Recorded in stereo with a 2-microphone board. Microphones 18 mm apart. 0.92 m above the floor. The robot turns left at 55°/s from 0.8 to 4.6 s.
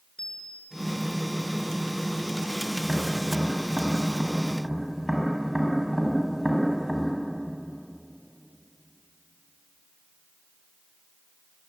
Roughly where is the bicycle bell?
Left.